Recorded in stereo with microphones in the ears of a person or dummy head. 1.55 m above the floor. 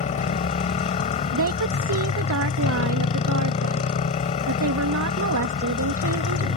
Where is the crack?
No crack in this recording.